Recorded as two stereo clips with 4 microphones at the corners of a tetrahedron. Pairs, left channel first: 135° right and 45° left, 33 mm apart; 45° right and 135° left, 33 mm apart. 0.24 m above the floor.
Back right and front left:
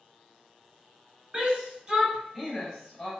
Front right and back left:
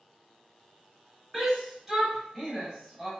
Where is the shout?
65° left, 1.2 m; by 3.1 s 105° right, 1.1 m.